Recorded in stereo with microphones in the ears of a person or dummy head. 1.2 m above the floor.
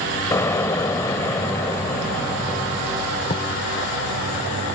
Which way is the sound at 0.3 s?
20° left (ahead or behind).